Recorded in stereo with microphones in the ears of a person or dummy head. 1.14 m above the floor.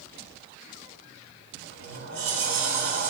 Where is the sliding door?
60° right (ahead or behind), 4 m.